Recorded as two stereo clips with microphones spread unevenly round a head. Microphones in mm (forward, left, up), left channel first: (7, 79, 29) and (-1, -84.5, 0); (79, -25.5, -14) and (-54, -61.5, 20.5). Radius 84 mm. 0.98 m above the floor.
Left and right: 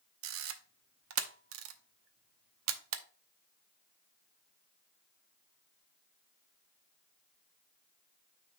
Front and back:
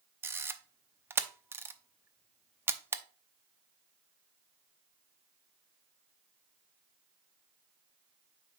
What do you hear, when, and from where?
0.2 s a camera shutter: 95° right, 0.8 m